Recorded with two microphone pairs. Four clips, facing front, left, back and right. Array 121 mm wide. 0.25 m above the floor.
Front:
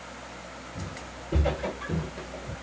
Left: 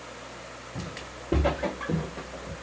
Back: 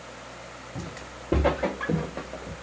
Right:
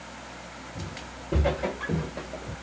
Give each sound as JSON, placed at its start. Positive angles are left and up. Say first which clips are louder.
{"t": 0.8, "sound": "footsteps", "louder": "left 2 dB, back 2 dB", "azimuth_deg": 140, "distance_m": 1.3}